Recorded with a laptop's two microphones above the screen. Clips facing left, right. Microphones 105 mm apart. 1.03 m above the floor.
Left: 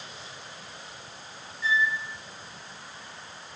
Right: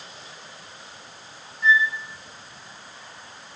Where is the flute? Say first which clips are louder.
Right 5 dB; 55° right (ahead or behind), 1.1 m.